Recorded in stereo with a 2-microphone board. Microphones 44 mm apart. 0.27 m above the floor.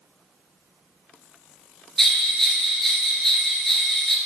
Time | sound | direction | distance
2.0 | a bell | 5° left (ahead or behind) | 1.4 m